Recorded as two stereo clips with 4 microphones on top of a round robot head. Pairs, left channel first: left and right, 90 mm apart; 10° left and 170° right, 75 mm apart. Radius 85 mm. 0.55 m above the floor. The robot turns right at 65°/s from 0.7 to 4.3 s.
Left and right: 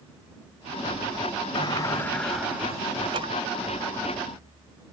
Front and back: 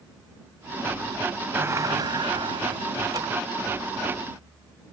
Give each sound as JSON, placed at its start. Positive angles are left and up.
{"t": 1.6, "sound": "a sliding door", "azimuth_deg": 125}